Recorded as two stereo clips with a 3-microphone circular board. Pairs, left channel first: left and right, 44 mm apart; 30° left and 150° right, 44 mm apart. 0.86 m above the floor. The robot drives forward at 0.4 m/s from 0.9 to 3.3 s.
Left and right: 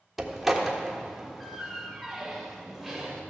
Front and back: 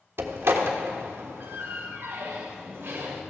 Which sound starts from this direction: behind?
A door slam, at 0.2 s.